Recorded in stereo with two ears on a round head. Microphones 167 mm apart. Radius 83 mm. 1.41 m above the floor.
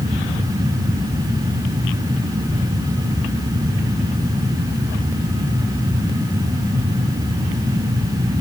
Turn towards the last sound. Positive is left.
No sound to turn to.